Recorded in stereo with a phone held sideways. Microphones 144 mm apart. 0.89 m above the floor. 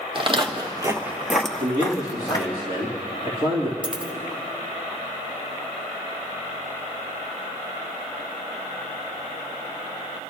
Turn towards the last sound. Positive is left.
turn(degrees=-5)  # may be behind; listen again after turning